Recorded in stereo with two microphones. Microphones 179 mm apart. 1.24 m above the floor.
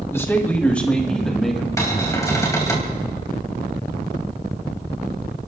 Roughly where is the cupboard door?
Centre.